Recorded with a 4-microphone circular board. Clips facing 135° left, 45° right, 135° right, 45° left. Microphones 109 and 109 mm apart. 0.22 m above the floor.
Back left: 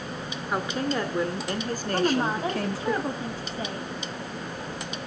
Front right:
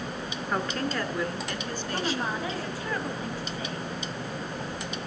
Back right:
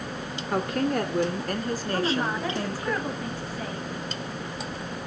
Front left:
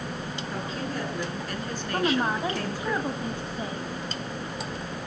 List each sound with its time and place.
0.5 s a woman speaking: 140° right, 2.5 m; by 2.9 s 150° left, 3 m
1.9 s a woman speaking: 100° left, 1.2 m